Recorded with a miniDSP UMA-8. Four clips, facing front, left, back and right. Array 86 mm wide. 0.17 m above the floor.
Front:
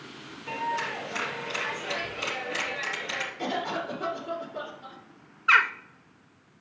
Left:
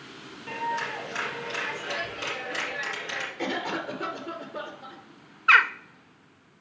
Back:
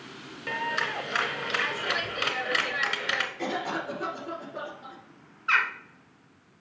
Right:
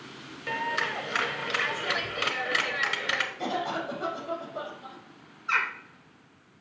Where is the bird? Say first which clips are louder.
Left 9 dB, front 4 dB; 70° left, 0.6 m.